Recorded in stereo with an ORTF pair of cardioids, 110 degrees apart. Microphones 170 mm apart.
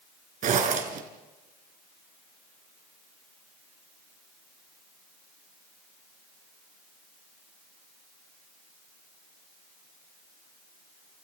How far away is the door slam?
No door slam in this recording.